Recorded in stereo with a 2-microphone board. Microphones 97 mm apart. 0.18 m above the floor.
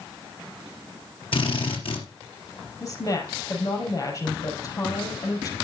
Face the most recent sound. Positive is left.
turn(degrees=35)  # may be behind; listen again after turning